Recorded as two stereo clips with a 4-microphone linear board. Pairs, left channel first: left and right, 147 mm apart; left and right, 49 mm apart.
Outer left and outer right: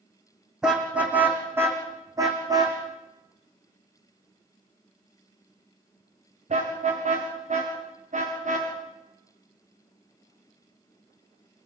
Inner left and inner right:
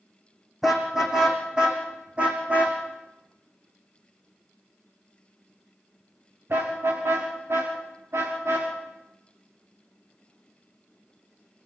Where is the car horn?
5° right (ahead or behind), 5 m; by 8.7 s 60° right (ahead or behind), 10.5 m.